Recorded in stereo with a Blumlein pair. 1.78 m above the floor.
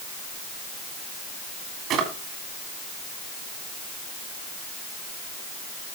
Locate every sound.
1.9 s a drawer: 30° right, 3 m